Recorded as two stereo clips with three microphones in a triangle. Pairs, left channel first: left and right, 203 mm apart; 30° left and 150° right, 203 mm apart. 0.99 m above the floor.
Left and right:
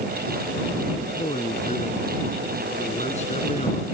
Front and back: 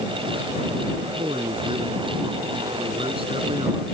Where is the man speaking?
145° left.